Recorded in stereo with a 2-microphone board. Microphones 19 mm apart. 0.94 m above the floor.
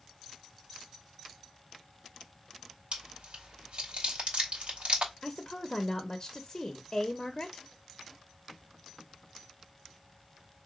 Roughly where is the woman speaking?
Left.